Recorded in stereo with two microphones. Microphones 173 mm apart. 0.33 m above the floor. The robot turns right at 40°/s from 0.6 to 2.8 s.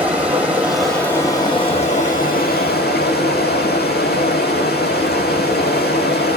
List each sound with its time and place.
0.0 s running water: 10° right, 1.2 m; by 6.4 s 80° left, 1.2 m